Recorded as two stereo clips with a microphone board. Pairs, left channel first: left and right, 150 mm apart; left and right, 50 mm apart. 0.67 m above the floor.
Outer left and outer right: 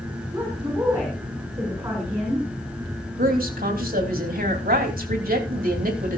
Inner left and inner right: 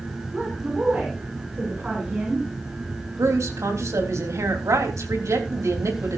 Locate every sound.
0.3 s a woman speaking: 20° right (ahead or behind), 7 m
3.2 s a woman speaking: 80° right, 3.5 m